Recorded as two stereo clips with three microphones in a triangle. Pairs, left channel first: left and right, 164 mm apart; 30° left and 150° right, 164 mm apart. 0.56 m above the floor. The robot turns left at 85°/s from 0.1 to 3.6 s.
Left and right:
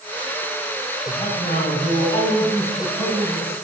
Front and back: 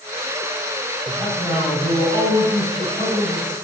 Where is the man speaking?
115° left, 4 m; by 3.5 s 95° right, 4 m.